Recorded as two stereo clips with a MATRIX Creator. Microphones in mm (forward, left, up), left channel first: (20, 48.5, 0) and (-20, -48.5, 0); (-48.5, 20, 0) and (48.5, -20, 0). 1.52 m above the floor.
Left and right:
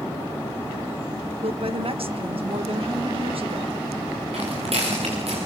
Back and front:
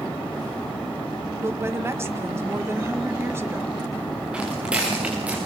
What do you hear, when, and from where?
1.4 s a woman speaking: 85° right, 1.6 m
4.3 s footsteps: 100° right, 9 m